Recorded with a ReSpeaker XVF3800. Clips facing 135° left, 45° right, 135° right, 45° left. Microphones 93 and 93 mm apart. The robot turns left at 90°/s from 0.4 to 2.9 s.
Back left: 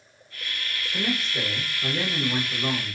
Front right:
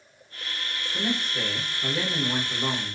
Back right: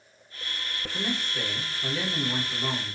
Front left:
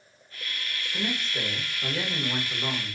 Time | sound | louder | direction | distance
0.9 | a man speaking | back left 1 dB, even | 120° left | 1.1 m